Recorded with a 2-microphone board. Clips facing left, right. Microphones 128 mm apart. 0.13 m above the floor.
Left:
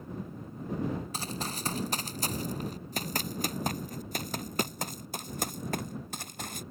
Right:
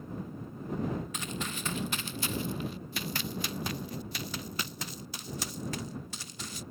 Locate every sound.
1.1 s running footsteps: 40° left (ahead or behind); by 6.6 s 60° left (ahead or behind)